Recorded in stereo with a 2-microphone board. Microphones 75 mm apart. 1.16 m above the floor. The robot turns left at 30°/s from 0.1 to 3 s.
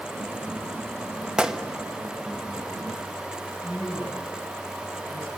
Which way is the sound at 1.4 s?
10° right (ahead or behind).